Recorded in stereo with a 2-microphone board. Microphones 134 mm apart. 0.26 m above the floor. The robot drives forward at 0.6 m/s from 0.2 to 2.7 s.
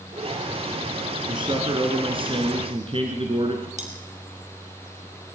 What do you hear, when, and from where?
1.3 s a man speaking: 35° right (ahead or behind), 4 m; by 3.7 s 40° right (ahead or behind), 3.5 m
3.8 s cutlery clinking: 60° right (ahead or behind), 4 m